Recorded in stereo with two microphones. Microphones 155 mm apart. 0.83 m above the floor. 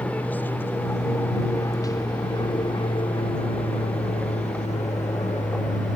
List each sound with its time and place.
0.0 s an aircraft: 10° left (ahead or behind); by 6.0 s 55° left (ahead or behind)